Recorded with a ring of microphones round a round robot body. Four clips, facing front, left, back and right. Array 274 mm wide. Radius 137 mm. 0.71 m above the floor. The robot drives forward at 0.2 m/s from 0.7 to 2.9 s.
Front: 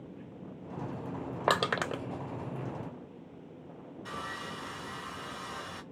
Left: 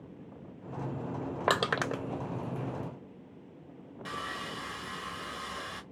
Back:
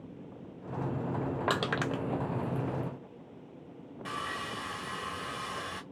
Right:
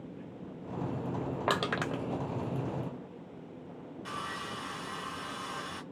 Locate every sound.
1.5 s crushing: 40° left, 0.5 m; by 2.0 s 60° left, 0.5 m
4.0 s sawing: 170° left, 1.6 m